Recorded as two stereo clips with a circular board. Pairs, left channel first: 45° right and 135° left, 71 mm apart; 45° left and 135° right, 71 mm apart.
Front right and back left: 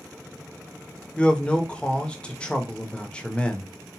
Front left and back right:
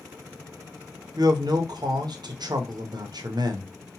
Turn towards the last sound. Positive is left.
turn(degrees=-120)